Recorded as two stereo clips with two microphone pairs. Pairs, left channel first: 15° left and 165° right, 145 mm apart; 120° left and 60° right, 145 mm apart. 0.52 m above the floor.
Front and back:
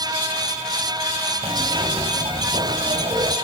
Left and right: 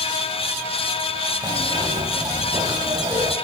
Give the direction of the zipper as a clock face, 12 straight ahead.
4 o'clock.